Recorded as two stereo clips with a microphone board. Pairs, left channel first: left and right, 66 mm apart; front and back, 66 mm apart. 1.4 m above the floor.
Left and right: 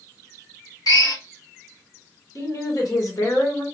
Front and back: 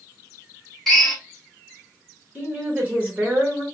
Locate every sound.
0.9 s a drill: 85° left, 1.0 m
2.4 s a woman speaking: 115° left, 1.7 m